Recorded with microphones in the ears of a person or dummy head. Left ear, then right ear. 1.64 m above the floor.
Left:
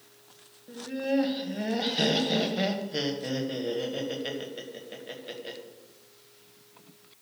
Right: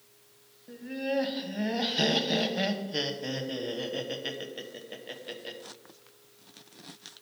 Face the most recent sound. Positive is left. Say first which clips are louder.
# left 2 dB
turn(degrees=-5)  # may be behind; listen again after turning